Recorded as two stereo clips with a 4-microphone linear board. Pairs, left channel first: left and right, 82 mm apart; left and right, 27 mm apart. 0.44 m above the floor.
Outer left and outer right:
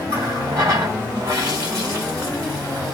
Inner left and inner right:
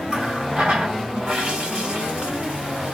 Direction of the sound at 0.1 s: 55° right (ahead or behind).